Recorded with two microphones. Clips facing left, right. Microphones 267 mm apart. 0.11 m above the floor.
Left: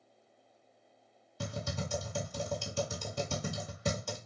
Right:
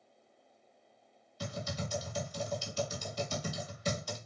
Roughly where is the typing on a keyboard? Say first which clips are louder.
Left 1 dB; left.